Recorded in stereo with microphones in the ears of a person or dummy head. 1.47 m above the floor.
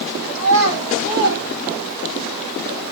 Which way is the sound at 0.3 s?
85° right.